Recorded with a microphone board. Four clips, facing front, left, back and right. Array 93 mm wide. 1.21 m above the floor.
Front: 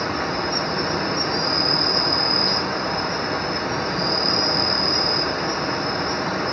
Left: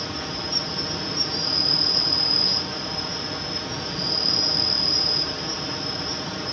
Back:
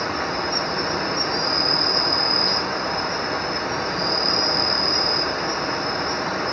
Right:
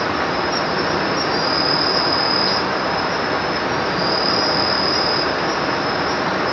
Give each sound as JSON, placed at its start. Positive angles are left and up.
{"t": 0.0, "sound": "an insect", "azimuth_deg": -90}